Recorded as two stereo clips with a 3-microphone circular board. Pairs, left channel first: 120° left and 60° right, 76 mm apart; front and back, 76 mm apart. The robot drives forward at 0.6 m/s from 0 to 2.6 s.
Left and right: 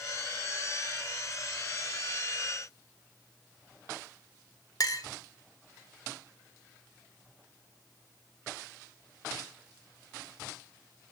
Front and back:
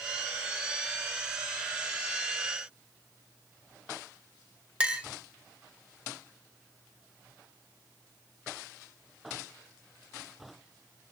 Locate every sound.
4.8 s a clink: 110° left, 0.7 m